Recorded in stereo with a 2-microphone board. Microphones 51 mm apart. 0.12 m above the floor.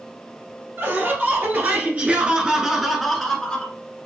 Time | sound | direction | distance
0.8 | laughter | 55° right (ahead or behind) | 1.8 m